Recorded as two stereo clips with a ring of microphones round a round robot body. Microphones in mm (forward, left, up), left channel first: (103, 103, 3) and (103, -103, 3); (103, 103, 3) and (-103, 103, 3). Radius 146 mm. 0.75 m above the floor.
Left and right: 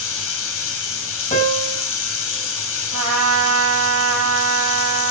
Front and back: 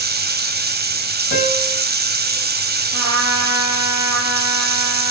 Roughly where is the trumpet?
Behind right.